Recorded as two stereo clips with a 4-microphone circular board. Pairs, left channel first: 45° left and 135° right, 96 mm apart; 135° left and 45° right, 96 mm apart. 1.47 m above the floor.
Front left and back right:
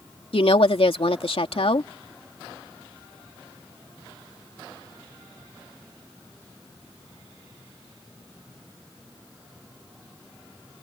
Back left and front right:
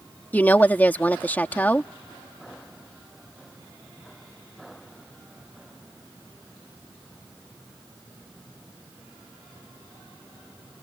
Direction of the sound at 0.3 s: 65° left.